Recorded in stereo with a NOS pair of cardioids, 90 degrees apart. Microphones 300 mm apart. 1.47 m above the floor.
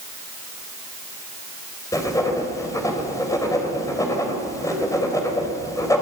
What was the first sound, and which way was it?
Writing, 10° left.